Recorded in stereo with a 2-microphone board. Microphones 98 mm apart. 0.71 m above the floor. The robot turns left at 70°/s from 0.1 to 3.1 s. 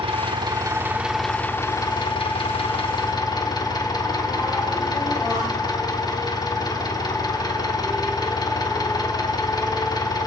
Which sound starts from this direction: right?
An engine running, at 0.0 s.